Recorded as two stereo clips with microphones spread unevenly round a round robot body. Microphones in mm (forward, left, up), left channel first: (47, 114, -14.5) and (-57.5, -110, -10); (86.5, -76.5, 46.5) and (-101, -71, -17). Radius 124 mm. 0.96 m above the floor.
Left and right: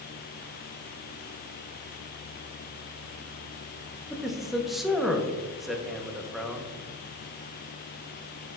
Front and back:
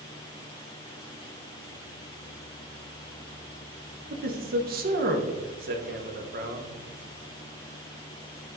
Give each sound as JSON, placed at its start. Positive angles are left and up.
{"t": 4.1, "sound": "a man speaking", "azimuth_deg": 155, "distance_m": 1.1}